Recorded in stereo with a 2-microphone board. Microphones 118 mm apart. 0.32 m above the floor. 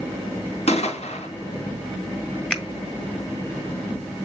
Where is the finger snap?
5° left (ahead or behind), 1.6 m.